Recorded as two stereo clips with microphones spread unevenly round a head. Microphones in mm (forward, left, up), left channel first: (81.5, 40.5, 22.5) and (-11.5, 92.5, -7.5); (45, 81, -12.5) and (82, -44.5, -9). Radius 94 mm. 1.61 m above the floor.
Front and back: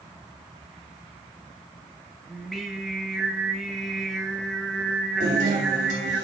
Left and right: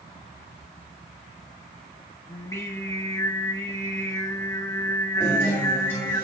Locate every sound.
2.3 s singing: 45° left, 1.2 m
5.2 s a guitar: straight behind, 2.5 m